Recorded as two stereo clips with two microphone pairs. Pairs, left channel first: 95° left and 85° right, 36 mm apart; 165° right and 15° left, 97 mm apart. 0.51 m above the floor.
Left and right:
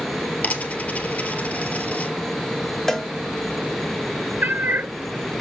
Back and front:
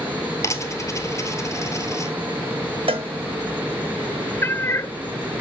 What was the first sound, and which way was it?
A dropped coin, 140° left.